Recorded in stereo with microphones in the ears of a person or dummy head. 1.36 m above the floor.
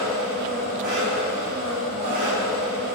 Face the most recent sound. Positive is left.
turn(degrees=-50)  # may be behind; listen again after turning